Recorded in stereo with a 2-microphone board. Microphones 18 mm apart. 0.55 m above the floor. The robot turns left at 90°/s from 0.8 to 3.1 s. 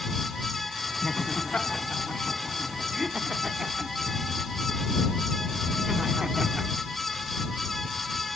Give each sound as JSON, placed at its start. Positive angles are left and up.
{"t": 1.0, "sound": "laughter", "side_deg": 25}